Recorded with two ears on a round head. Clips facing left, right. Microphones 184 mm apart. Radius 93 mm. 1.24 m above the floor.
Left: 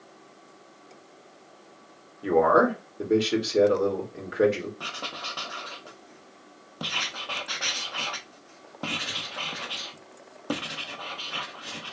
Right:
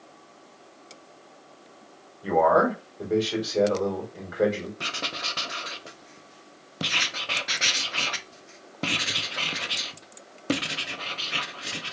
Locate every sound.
2.2 s a man speaking: 35° left (ahead or behind), 2 m
4.8 s writing: 25° right (ahead or behind), 0.6 m